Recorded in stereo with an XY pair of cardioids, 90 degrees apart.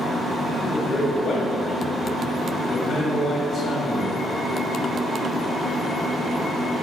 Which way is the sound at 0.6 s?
45° left.